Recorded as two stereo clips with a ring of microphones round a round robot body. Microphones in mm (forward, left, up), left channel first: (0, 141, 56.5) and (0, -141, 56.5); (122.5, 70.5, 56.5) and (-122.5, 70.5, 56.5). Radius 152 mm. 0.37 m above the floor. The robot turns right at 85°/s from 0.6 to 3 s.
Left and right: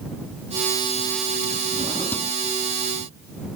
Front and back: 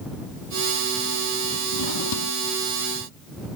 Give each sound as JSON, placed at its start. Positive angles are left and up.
{"t": 1.7, "sound": "a drawer", "azimuth_deg": -30}